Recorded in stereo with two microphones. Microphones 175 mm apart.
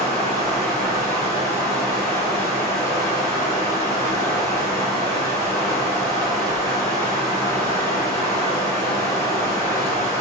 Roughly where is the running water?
Centre.